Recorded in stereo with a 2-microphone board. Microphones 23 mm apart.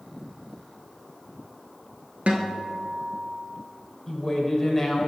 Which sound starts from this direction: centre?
A woman speaking, at 4.1 s.